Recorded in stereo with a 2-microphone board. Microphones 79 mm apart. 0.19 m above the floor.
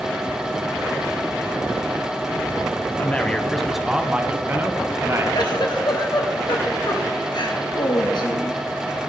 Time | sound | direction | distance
3.0 | a man speaking | 20° left (ahead or behind) | 1.1 m
5.3 | a giggle | 70° left (ahead or behind) | 1.7 m